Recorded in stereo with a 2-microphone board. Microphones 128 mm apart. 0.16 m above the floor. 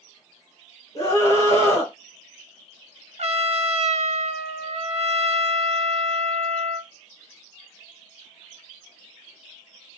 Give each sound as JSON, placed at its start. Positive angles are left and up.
{"t": 0.9, "sound": "a scream", "side_deg": 25, "distance_m": 1.2}
{"t": 3.2, "sound": "a trumpet", "side_deg": -55, "distance_m": 0.5}